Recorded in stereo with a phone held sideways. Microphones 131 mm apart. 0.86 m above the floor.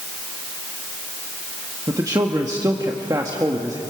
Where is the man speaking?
30° right (ahead or behind), 1.4 m.